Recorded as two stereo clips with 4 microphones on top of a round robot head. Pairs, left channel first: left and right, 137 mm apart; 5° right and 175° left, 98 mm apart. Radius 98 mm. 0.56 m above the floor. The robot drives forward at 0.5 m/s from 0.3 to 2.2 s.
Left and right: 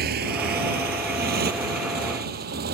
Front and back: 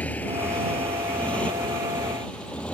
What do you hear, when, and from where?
0.0 s a motorcycle: 85° right